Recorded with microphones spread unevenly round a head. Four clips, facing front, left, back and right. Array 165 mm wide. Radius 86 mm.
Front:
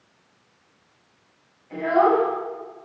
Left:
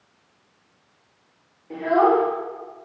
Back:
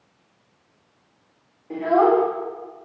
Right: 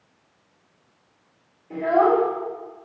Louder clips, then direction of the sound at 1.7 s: Even, back 1 dB; 155° left.